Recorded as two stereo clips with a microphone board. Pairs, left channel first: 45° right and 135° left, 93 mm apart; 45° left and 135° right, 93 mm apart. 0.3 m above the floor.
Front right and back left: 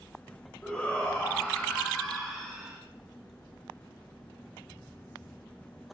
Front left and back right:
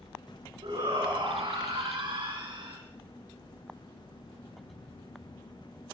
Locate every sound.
0.6 s a shout: 120° right, 4 m; by 2.8 s 140° right, 3 m